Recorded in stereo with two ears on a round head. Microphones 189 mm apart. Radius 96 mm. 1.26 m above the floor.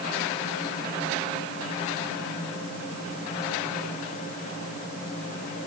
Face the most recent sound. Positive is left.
No sound to turn to.